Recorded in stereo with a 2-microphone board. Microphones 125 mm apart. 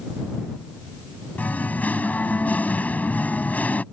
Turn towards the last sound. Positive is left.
turn(degrees=10)  # may be behind; listen again after turning